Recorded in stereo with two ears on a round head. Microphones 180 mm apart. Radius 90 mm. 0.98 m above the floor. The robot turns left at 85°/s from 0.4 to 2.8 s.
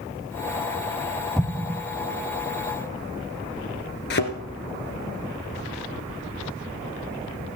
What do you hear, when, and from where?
1.4 s an explosion: centre (ahead or behind), 0.7 m; by 1.8 s 25° right (ahead or behind), 0.7 m
4.1 s a thud: 55° left (ahead or behind), 2.5 m